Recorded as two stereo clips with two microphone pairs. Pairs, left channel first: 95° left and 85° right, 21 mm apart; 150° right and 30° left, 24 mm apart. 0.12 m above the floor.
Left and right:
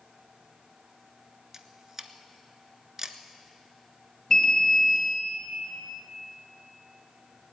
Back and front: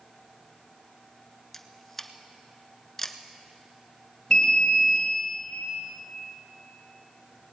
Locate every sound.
1.5 s a camera shutter: 90° right, 0.7 m
4.3 s an alarm: 155° left, 3 m